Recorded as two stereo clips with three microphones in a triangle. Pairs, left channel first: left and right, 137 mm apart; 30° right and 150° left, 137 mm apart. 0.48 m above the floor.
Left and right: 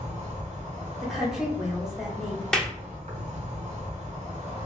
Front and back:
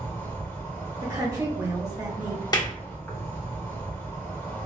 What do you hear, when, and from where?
0.0 s an insect: 100° right, 1.0 m
1.0 s a woman speaking: 175° right, 1.2 m
2.5 s a clap: 5° left, 0.6 m